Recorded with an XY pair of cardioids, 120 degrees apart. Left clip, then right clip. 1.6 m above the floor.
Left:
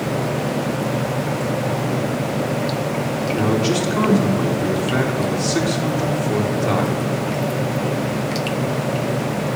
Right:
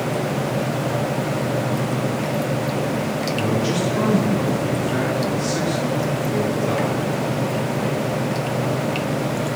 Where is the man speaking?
30° left, 2.5 m.